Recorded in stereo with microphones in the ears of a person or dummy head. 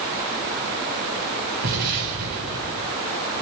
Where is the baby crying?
No baby crying in this recording.